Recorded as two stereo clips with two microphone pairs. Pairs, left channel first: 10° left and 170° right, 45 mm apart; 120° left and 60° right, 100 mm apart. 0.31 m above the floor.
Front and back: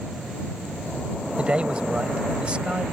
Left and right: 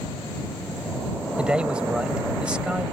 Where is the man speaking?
130° right.